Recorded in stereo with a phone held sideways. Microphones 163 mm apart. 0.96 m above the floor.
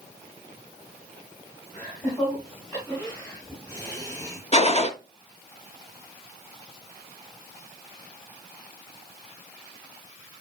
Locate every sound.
1.8 s laughter: 35° left (ahead or behind), 5 m; by 4.4 s 20° left (ahead or behind), 8.5 m
4.5 s a gunshot: 40° left (ahead or behind), 1.0 m